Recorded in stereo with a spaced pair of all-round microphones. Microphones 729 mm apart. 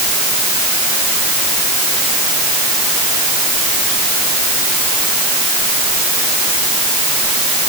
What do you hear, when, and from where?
Only background noise.